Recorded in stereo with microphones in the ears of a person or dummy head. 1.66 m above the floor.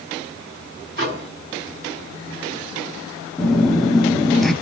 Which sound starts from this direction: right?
A microwave, at 1.0 s.